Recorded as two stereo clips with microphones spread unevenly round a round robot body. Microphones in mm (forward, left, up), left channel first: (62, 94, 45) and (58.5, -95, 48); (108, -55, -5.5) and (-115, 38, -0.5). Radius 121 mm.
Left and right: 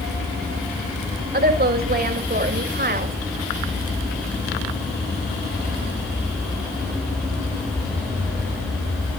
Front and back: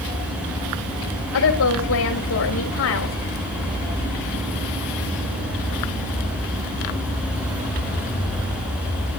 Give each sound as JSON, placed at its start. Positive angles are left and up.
{"t": 1.3, "sound": "a woman speaking", "azimuth_deg": -55, "distance_m": 5.5}